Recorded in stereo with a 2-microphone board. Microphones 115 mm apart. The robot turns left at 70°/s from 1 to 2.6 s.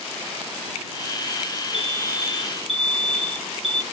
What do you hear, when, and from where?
1.7 s an alarm: 175° right; by 3.8 s 125° left